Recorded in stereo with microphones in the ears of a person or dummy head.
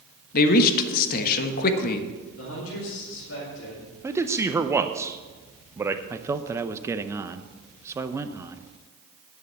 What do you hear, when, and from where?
0.3 s a man speaking: 50° left (ahead or behind), 1.2 m
2.4 s a man speaking: 80° left, 3.5 m
4.0 s a man speaking: 15° right (ahead or behind), 0.6 m
6.1 s a man speaking: 15° right (ahead or behind), 0.7 m